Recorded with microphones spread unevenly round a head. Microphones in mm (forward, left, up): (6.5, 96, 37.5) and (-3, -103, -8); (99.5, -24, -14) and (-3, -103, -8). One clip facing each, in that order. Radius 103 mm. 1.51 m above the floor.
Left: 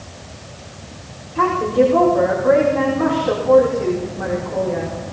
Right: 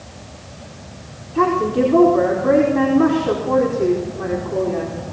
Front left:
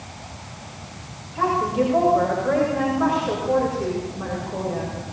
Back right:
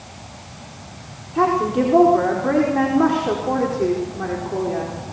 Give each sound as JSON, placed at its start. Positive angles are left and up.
{"t": 1.4, "sound": "a woman speaking", "azimuth_deg": -130, "distance_m": 5.0}